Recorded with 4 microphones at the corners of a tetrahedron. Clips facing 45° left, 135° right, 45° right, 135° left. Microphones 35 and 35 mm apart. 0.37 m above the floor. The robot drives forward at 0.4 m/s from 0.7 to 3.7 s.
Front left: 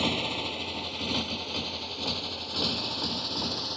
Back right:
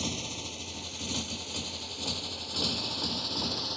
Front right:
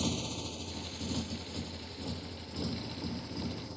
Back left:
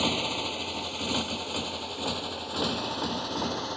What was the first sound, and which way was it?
A motorcycle, 100° left.